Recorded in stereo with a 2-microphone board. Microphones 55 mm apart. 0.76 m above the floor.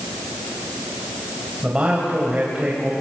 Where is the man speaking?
15° right (ahead or behind), 4.5 m.